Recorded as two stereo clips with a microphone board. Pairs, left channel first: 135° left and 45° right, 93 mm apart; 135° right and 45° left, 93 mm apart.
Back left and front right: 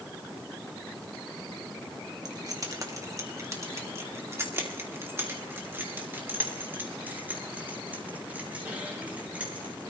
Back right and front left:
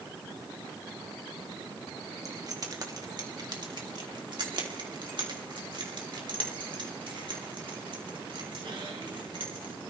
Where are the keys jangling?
Straight ahead, 1.8 m; by 9.8 s 30° left, 5 m.